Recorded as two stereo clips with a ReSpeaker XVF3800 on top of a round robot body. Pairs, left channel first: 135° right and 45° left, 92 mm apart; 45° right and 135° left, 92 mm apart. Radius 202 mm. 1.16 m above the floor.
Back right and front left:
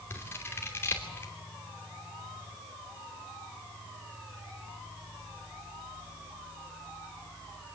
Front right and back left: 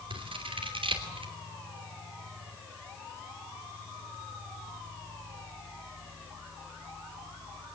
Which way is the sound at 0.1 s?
160° left.